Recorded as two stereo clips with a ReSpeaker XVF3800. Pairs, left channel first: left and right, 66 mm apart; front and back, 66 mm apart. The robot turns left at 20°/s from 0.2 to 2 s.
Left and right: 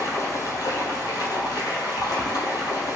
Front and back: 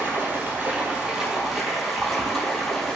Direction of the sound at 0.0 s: 125° left.